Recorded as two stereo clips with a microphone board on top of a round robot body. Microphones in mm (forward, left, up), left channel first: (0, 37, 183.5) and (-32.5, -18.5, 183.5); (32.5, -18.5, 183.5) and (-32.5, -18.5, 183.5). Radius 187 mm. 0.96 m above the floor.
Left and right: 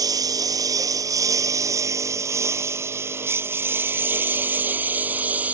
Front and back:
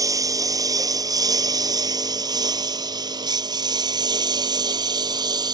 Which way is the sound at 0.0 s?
145° right.